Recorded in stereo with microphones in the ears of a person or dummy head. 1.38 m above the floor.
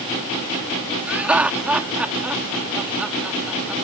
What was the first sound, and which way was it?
Laughter, 5° right (ahead or behind).